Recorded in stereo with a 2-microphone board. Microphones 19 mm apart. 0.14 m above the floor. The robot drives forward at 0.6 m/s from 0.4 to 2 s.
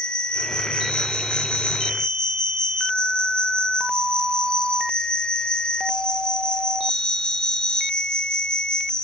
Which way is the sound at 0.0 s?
40° left (ahead or behind).